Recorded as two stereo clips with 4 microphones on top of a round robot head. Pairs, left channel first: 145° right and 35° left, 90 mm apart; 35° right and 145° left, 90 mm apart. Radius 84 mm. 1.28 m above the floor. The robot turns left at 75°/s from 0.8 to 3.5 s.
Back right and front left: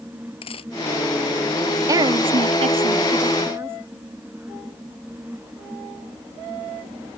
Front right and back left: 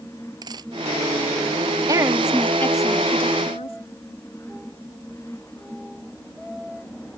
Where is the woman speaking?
95° left; by 3.8 s 30° right.